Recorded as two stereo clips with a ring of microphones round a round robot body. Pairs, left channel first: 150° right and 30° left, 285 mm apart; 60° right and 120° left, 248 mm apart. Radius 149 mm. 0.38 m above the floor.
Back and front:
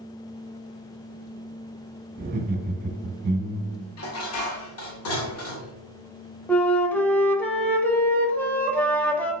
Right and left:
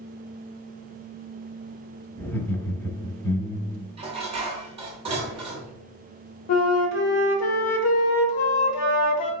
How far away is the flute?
About 0.8 m.